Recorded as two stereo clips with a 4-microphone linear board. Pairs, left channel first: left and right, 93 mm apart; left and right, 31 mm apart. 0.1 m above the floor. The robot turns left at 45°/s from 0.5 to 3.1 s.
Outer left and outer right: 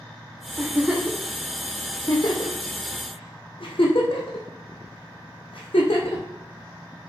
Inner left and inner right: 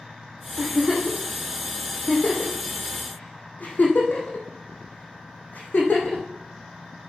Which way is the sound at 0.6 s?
30° right (ahead or behind).